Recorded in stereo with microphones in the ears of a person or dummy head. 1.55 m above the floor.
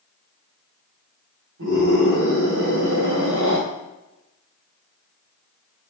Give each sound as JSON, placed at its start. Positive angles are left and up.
{"t": 1.6, "sound": "a scream", "side_deg": -85, "distance_m": 4.5}